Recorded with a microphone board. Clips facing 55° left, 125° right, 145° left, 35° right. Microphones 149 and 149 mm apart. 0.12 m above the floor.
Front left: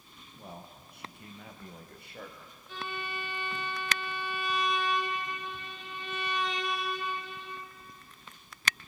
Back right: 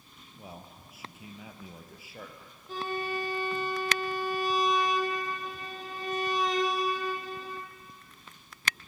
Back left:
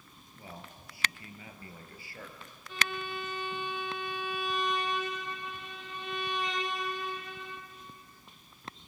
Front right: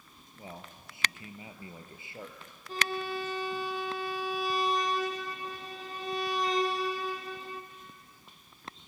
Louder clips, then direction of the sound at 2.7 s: Back right 6 dB, front right 3 dB; 80° right.